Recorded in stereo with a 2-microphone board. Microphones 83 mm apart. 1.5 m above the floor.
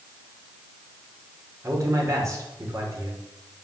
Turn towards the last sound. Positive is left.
turn(degrees=-35)  # may be behind; listen again after turning